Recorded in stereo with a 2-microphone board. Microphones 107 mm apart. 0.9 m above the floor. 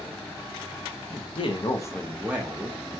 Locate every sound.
1.1 s a man speaking: 65° left (ahead or behind), 0.9 m; by 2.8 s 40° right (ahead or behind), 0.8 m